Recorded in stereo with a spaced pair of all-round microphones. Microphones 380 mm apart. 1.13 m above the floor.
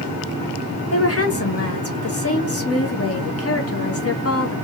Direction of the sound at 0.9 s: 40° left (ahead or behind).